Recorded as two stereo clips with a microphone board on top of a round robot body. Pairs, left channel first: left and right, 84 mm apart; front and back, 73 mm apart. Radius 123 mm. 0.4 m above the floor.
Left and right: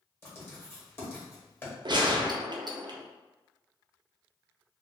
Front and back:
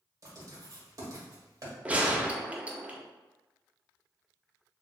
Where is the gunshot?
110° right, 0.5 m.